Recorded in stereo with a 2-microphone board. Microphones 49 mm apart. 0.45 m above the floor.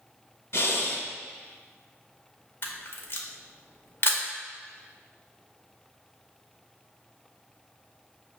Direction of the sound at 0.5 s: 55° left (ahead or behind).